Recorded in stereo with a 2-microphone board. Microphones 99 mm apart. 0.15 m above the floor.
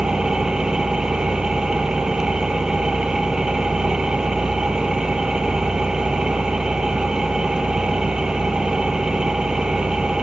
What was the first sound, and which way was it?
An engine running, 10° right (ahead or behind).